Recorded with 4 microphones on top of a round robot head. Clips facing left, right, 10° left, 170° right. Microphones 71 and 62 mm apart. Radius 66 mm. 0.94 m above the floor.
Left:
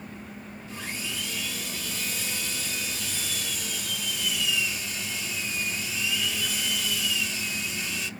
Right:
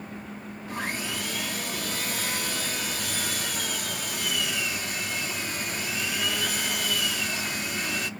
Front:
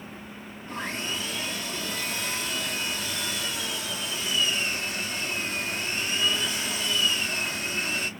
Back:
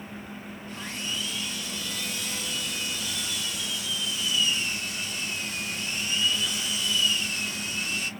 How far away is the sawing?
About 0.9 m.